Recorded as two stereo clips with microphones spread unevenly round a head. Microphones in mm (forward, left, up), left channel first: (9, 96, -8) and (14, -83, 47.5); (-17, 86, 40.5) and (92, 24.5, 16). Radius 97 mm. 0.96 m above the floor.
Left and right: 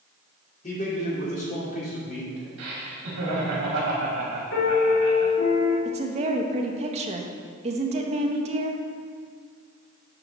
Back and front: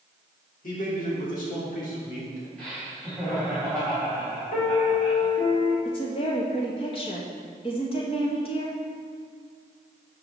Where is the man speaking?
135° left, 3 m.